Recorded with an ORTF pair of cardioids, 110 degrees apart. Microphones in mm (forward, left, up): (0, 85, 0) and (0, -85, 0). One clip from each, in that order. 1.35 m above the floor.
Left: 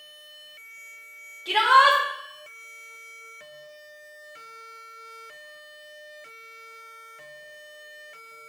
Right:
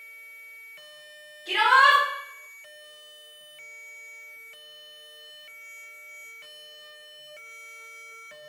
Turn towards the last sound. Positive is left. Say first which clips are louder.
# left 1 dB
turn(degrees=45)